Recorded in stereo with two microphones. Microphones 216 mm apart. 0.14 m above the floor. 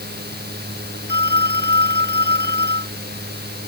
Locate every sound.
1.1 s a phone ringing: 50° right (ahead or behind)